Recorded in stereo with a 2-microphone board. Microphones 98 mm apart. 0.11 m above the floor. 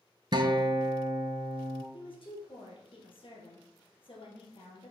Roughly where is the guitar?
Right.